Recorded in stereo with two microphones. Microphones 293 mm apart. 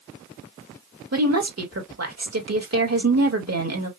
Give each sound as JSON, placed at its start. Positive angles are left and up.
{"t": 1.1, "sound": "a woman speaking", "side_deg": -55, "distance_m": 1.7}